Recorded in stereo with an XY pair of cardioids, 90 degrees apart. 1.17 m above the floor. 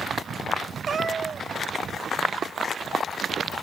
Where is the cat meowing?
50° right.